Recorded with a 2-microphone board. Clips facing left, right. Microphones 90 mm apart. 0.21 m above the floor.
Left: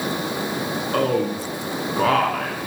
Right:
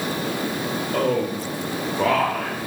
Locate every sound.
0.9 s a man speaking: 60° left (ahead or behind), 3 m